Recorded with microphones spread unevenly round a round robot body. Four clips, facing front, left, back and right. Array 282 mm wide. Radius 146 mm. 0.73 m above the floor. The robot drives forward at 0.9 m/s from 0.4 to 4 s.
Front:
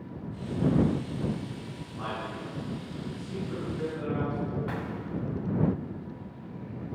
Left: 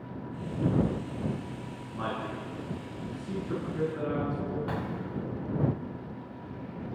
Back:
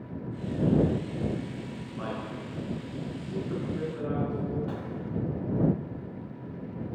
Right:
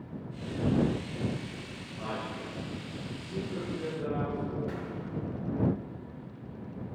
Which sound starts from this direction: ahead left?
An explosion, at 4.7 s.